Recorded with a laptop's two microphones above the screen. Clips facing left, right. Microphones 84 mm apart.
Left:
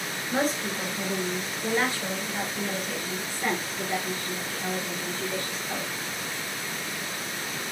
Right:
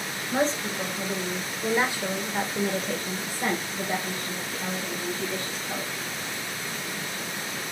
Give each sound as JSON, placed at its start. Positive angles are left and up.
{"t": 0.3, "sound": "a woman speaking", "side_deg": 10, "distance_m": 1.3}